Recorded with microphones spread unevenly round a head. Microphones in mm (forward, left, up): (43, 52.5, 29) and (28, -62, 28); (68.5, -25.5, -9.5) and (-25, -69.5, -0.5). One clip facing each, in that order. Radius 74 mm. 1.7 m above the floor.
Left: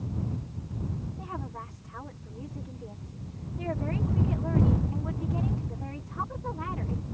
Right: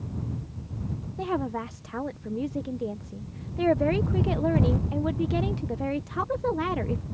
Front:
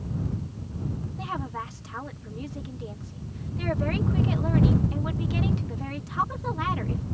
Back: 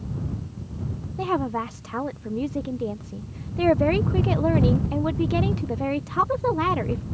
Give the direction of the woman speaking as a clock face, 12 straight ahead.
4 o'clock.